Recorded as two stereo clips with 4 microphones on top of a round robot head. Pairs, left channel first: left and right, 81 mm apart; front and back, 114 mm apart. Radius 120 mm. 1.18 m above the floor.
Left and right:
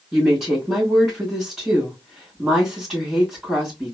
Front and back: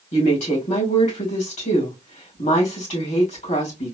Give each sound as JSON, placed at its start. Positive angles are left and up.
{"t": 0.1, "sound": "a woman speaking", "azimuth_deg": -10, "distance_m": 2.0}